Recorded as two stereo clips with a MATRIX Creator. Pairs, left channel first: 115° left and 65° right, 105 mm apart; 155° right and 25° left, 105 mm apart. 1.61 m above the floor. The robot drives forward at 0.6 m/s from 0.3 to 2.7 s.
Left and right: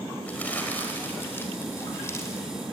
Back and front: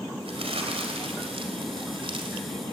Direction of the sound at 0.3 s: 40° left.